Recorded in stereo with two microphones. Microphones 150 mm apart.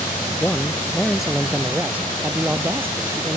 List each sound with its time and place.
0.4 s a man speaking: 10° left (ahead or behind); by 3.4 s 15° right (ahead or behind)